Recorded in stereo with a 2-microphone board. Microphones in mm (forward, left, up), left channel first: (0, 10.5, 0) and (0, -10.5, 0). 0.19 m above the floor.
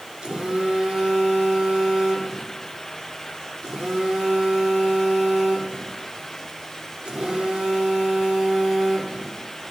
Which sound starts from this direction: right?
A phone buzzing, at 0.2 s.